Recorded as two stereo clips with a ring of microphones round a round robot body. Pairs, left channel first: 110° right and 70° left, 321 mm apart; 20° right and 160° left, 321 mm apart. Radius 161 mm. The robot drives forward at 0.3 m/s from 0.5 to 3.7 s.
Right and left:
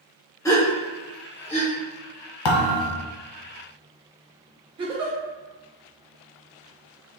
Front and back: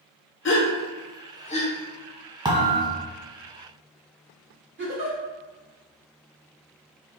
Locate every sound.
0.5 s a gasp: 40° right, 1.0 m; by 1.7 s 75° right, 0.9 m
2.5 s a thud: 125° right, 1.0 m; by 3.0 s 130° right, 1.1 m
4.8 s a giggle: 135° left, 1.1 m